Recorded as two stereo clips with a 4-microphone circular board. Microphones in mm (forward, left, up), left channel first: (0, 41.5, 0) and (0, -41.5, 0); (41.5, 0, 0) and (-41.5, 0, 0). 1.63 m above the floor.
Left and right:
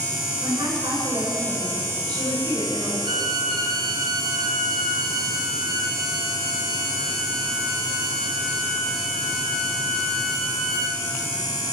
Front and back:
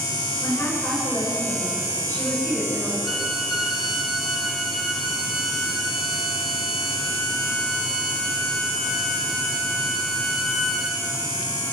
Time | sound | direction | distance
0.4 | a woman speaking | 65° right | 8.5 m
3.0 | a violin | 90° right | 2.5 m